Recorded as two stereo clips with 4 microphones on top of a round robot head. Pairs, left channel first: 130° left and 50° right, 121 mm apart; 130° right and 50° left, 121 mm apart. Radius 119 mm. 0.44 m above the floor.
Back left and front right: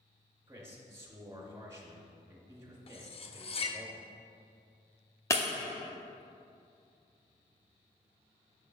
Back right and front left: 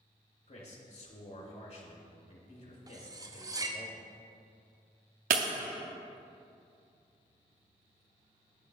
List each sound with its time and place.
0.5 s a man speaking: 115° right, 2 m
2.9 s cutlery clinking: 105° left, 0.7 m
5.3 s breaking glass: 60° left, 0.5 m